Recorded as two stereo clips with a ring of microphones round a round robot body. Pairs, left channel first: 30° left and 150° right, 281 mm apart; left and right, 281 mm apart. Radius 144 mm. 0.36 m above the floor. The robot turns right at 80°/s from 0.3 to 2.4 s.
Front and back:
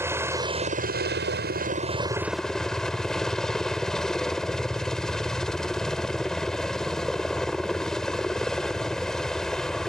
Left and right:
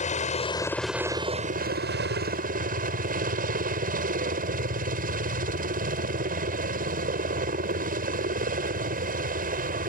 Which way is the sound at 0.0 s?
135° left.